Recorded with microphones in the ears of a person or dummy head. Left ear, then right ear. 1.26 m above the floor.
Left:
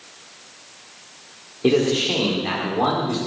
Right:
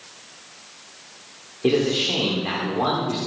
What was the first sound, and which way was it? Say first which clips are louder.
A man speaking: left 2 dB; 5° left (ahead or behind).